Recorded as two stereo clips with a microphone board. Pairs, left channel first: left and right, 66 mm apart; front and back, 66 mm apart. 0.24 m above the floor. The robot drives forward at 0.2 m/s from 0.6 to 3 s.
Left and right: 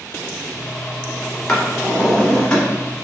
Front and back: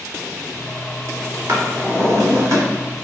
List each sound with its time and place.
1.5 s a drawer: 165° left, 1.0 m